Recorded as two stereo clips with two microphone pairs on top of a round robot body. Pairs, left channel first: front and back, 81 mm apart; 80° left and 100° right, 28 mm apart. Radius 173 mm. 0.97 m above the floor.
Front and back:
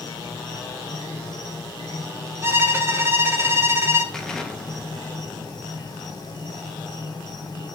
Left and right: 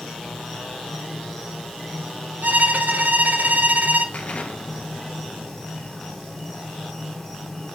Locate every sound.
0.0 s an insect: straight ahead, 1.8 m
2.4 s a violin: 120° right, 0.7 m
4.1 s an explosion: 85° left, 1.0 m